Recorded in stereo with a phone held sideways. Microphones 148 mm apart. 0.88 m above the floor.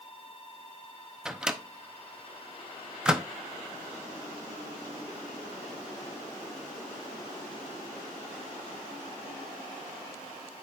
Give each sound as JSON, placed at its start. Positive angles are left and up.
{"t": 1.2, "sound": "a microwave", "side_deg": -5, "distance_m": 0.7}